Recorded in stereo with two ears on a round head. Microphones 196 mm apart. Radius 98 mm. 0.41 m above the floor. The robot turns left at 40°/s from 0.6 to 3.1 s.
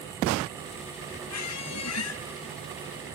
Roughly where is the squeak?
Left.